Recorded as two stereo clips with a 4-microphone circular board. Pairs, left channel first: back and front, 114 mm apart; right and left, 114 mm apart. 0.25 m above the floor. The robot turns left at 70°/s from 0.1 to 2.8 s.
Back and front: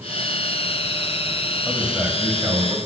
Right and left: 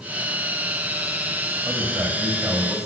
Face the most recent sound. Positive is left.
turn(degrees=20)